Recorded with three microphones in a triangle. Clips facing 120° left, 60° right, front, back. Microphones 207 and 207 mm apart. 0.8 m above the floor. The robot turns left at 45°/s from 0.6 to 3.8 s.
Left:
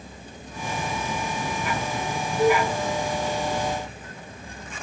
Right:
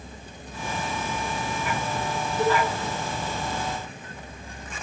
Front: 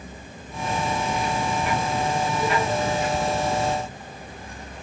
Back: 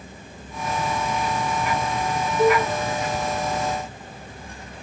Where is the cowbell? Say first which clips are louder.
Left 3 dB, back 10 dB; 155° right, 3 m; by 2.7 s 165° right, 3 m.